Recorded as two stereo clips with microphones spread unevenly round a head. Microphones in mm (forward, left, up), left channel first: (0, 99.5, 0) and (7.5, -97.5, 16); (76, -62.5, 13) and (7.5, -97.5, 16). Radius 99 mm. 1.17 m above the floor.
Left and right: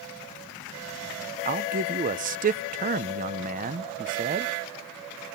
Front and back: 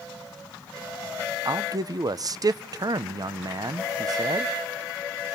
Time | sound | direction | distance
1.4 | a man speaking | 130° right | 0.8 m